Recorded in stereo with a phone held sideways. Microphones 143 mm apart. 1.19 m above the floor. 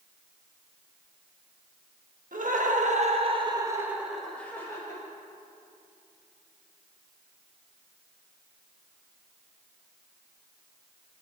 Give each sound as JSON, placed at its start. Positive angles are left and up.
{"t": 2.3, "sound": "laughter", "side_deg": -70, "distance_m": 1.3}